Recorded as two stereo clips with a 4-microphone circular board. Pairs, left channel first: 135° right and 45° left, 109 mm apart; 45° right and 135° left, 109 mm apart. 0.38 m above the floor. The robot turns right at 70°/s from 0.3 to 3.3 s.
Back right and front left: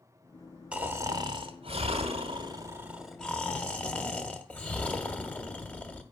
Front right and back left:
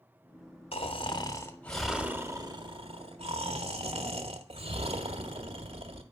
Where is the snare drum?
I don't hear a snare drum.